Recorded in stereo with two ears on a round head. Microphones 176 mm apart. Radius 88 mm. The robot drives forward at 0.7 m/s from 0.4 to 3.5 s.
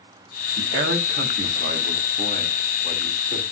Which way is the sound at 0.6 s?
65° right (ahead or behind).